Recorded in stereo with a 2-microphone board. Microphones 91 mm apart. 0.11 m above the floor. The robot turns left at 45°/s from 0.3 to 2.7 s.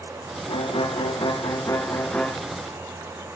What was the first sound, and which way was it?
A violin, 95° left.